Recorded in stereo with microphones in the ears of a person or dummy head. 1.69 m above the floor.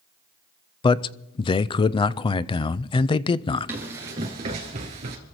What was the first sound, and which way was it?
A man speaking, 25° left (ahead or behind).